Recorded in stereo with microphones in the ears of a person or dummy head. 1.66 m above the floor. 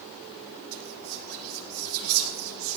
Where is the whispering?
85° right, 2.5 m.